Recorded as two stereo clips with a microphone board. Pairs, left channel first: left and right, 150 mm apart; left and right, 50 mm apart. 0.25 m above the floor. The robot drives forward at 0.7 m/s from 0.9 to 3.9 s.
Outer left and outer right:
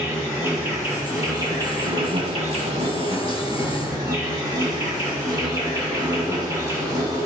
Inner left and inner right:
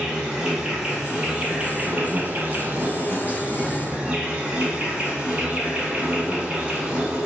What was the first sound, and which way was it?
An insect, 20° right (ahead or behind).